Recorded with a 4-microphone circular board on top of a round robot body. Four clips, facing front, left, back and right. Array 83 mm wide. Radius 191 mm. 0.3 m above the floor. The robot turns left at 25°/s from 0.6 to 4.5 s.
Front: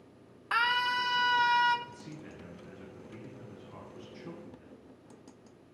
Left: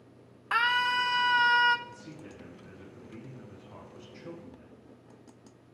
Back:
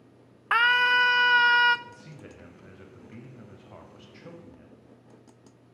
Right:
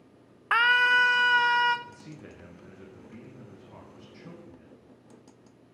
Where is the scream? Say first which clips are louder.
Right 5 dB, back 8 dB; 140° right, 1.1 m; by 1.8 s 170° right, 1.1 m.